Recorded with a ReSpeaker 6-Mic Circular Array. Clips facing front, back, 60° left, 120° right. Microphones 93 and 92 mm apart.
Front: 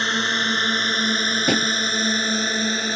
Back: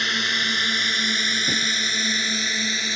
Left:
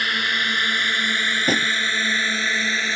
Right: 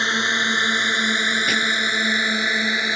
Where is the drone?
55° right; by 3.0 s 45° right.